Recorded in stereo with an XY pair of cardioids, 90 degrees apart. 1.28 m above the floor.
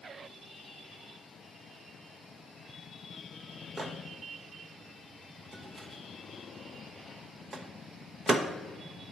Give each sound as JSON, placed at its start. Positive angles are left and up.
{"t": 3.8, "sound": "a microwave", "azimuth_deg": -40, "distance_m": 0.8}